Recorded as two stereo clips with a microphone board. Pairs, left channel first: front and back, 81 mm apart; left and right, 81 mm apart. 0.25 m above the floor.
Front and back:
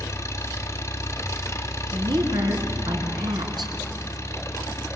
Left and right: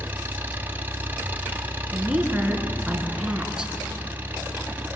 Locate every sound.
0.0 s an engine running: 30° right, 1.7 m
1.9 s a woman speaking: 165° right, 3.5 m